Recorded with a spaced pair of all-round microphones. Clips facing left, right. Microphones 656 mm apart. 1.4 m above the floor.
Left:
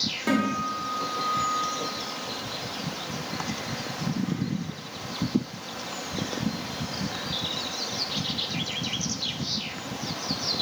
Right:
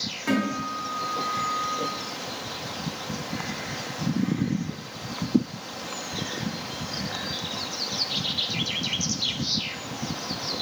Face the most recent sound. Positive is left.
turn(degrees=60)  # may be behind; listen again after turning